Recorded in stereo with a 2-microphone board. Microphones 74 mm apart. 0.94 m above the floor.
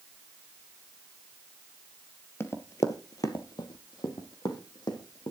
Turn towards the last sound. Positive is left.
turn(degrees=70)  # may be behind; listen again after turning